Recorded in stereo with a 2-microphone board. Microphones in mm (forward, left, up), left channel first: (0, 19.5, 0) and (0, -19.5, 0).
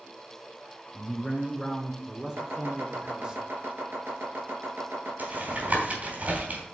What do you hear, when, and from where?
0.9 s a man speaking: 5° right (ahead or behind), 1.8 m; by 3.4 s 25° right (ahead or behind), 1.2 m
2.4 s chopping: 85° right, 4.5 m
5.2 s tapping: 50° right (ahead or behind), 3.5 m